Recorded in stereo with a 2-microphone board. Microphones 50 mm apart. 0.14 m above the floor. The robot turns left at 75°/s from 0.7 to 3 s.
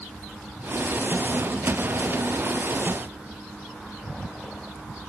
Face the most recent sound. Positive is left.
No sound to turn to.